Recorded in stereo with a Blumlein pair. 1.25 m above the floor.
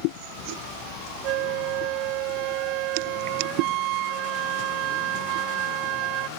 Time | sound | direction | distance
1.2 | a flute | 40° right | ?